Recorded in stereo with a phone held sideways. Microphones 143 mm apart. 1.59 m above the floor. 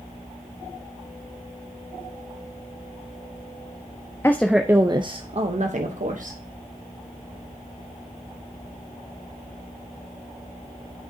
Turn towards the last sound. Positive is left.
turn(degrees=-65)  # may be behind; listen again after turning